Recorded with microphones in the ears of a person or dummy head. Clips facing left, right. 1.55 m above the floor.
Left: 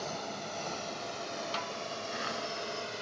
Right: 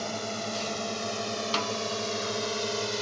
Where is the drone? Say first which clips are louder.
Right 5 dB; 85° right; by 3.0 s 65° right (ahead or behind).